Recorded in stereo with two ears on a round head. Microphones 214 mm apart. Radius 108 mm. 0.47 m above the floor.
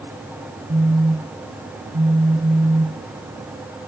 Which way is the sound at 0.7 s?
40° right (ahead or behind).